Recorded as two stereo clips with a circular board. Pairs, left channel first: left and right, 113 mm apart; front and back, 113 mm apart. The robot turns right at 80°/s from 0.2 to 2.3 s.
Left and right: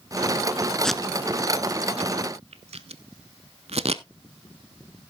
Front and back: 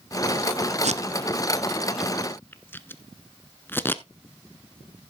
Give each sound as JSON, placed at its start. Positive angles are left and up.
{"t": 0.8, "sound": "tape being pulled", "azimuth_deg": 175, "distance_m": 0.6}